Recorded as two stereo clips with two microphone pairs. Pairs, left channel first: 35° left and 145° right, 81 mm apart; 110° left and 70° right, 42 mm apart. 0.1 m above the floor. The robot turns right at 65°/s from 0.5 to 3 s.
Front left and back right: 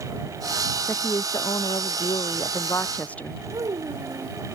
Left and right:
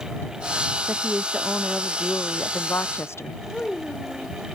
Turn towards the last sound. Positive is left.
turn(degrees=180)